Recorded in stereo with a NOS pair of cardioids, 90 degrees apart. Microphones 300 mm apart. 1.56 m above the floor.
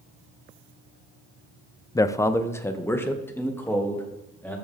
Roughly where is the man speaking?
Ahead.